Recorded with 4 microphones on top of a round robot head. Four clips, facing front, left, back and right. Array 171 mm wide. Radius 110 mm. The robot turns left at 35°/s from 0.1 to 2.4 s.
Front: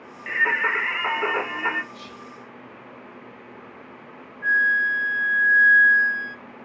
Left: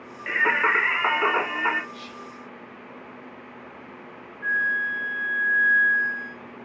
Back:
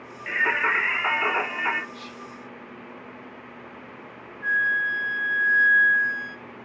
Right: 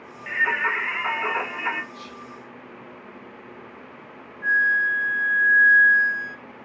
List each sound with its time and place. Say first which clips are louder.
0.3 s singing: left 2 dB, front 1 dB; 95° left, 1.3 m; by 1.8 s 40° left, 1.3 m
1.9 s whispering: even, back 1 dB; 25° left, 0.5 m; by 2.3 s 10° left, 0.5 m
4.4 s a flute: right 4 dB, front 3 dB; 70° right, 1.5 m